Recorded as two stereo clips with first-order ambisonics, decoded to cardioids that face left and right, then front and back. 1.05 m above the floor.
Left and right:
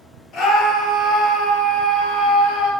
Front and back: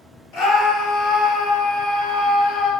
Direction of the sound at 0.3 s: 35° left.